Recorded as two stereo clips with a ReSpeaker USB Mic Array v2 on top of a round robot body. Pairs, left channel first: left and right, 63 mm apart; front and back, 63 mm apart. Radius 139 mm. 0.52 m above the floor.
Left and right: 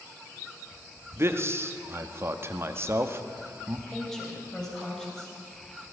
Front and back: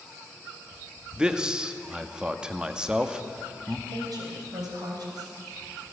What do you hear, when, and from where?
1.2 s a man speaking: 110° right, 1.1 m
3.9 s a woman speaking: 170° left, 3.5 m